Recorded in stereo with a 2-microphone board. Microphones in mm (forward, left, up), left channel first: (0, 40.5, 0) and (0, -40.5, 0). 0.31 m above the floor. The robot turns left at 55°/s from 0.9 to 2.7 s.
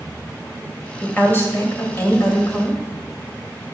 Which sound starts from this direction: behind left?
A woman speaking, at 1.0 s.